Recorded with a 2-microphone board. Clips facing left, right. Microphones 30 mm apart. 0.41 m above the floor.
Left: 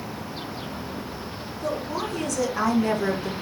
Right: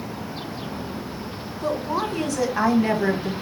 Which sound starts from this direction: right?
A woman speaking, at 1.6 s.